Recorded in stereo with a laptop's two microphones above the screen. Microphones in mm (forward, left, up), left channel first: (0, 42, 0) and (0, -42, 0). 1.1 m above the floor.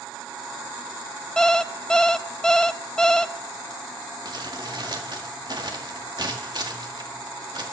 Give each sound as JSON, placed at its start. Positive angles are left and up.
{"t": 1.4, "sound": "an alarm clock", "side_deg": 5, "distance_m": 0.6}
{"t": 4.2, "sound": "crumpling", "side_deg": -60, "distance_m": 1.7}